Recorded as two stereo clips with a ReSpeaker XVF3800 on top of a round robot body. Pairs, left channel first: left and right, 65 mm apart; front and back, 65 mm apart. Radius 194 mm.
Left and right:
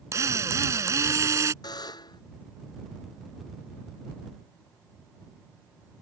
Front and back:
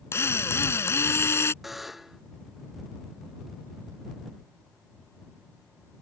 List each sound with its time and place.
0.1 s a drill: 50° right
1.6 s a buzzer: 95° left